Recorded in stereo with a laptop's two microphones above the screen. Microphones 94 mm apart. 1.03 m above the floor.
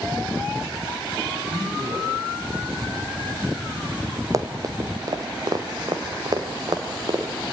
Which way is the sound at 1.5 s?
55° right (ahead or behind).